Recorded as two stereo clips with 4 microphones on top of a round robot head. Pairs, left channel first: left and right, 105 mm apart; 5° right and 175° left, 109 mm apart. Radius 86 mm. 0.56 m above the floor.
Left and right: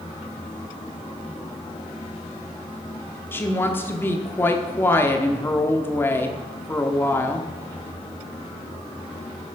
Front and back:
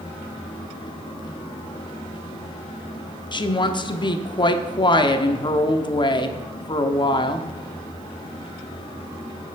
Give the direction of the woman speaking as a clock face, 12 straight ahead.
11 o'clock.